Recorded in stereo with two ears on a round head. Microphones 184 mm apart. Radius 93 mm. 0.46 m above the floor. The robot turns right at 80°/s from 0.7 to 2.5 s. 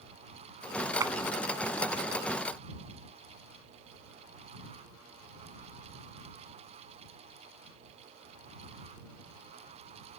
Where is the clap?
15° right (ahead or behind); by 1.1 s 5° right (ahead or behind).